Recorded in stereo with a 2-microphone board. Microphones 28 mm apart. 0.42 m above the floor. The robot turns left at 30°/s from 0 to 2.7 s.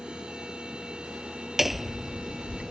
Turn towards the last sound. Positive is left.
turn(degrees=155)